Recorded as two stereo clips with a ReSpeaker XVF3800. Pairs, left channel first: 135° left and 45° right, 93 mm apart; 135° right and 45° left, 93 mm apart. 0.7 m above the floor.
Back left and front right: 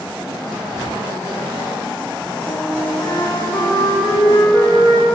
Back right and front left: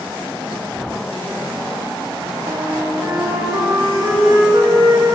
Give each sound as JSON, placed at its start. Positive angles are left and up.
{"t": 2.5, "sound": "a flute", "azimuth_deg": 85, "distance_m": 7.5}